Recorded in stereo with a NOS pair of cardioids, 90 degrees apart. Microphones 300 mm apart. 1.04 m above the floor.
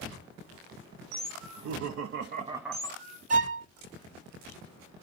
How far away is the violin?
About 0.6 m.